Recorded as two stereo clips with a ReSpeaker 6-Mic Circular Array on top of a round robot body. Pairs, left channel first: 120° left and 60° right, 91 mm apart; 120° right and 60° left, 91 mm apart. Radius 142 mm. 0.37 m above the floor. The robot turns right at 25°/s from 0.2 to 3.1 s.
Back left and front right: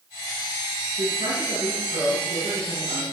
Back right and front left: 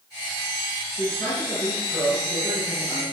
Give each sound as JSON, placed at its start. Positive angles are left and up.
{"t": 1.0, "sound": "a man speaking", "azimuth_deg": -55, "distance_m": 9.5}